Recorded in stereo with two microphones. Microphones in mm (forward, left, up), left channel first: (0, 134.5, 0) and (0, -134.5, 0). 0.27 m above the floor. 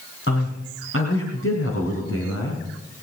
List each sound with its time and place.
0.3 s a man speaking: 50° left (ahead or behind), 3 m; by 2.6 s 65° left (ahead or behind), 3.5 m